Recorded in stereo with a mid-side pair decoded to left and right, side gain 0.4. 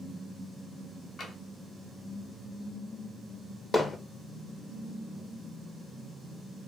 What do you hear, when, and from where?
1.2 s tapping: 55° left, 1.4 m
3.7 s hammering: 35° left, 0.7 m